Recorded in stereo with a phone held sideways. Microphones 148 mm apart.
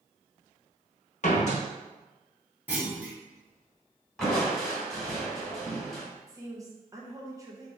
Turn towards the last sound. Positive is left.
turn(degrees=-25)  # may be behind; listen again after turning